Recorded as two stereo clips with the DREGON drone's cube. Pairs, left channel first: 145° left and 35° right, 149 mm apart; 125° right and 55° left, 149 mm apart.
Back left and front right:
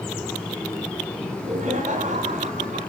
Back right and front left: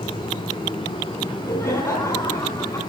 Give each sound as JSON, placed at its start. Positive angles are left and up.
{"t": 1.2, "sound": "laughter", "azimuth_deg": -55, "distance_m": 3.0}